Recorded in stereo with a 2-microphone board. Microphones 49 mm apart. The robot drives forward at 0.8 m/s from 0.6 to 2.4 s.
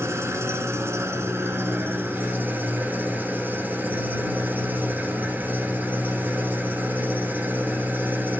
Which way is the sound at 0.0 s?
75° right (ahead or behind).